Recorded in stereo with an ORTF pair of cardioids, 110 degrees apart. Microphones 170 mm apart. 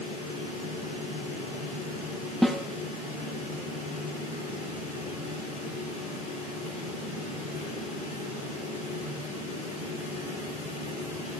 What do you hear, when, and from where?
0.0 s a fan: 50° left, 8 m
2.4 s a snare drum: straight ahead, 1.1 m